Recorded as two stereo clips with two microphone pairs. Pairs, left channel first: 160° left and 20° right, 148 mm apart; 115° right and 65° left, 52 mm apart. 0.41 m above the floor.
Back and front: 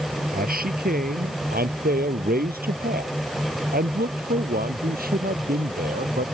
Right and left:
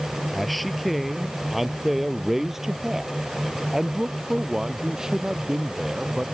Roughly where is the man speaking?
Ahead right.